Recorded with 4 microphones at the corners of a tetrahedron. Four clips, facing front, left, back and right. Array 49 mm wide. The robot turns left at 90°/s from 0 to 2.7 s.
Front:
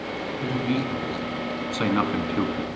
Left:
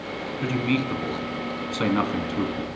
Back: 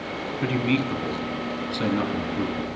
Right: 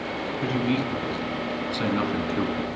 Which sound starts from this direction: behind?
A man speaking, at 0.4 s.